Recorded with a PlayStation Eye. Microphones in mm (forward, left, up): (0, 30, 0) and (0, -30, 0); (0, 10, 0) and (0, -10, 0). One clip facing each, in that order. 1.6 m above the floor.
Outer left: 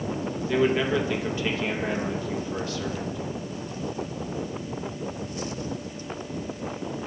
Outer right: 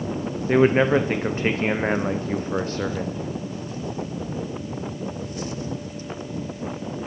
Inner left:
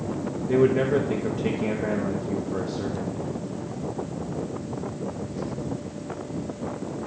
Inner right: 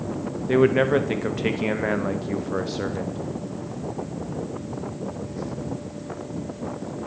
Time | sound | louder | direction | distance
0.5 | a man speaking | outer right 6 dB, inner right 2 dB | 40° right (ahead or behind) | 0.7 m